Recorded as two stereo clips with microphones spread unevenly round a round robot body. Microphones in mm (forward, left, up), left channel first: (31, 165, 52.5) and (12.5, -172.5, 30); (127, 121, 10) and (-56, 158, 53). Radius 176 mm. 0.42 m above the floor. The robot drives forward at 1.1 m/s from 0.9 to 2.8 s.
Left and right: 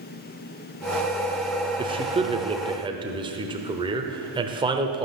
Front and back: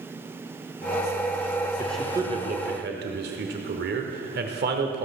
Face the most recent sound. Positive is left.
turn(degrees=-160)